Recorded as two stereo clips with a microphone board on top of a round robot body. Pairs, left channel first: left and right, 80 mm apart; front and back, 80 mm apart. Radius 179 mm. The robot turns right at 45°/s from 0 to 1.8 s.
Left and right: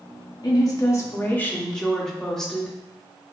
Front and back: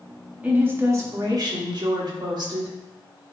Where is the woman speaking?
110° left, 1.9 m; by 3.3 s 175° left, 1.9 m.